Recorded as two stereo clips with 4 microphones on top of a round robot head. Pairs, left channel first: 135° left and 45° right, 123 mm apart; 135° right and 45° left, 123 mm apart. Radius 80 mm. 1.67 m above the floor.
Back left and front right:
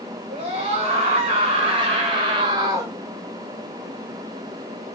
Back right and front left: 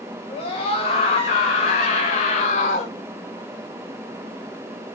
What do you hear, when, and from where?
0.3 s a scream: 95° right, 3 m; by 2.9 s 115° right, 1.0 m